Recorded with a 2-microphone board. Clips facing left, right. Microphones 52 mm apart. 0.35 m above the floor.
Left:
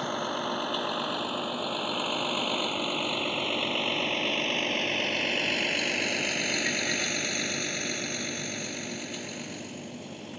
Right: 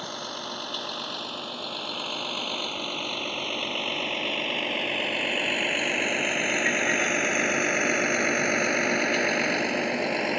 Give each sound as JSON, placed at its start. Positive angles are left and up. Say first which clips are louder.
{"t": 0.0, "sound": "a vehicle", "louder": "left 5 dB", "side_deg": 15}